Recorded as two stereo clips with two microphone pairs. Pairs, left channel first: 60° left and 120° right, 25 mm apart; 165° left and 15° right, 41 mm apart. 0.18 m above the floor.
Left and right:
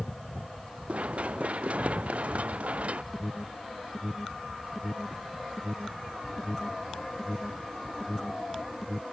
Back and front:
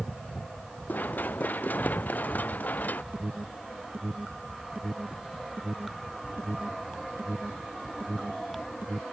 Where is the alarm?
30° right.